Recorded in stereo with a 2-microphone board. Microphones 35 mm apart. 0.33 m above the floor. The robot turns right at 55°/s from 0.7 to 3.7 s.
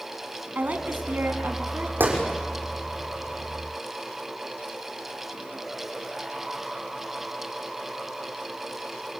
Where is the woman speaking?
125° right, 3 m; by 1.9 s 55° right, 3 m.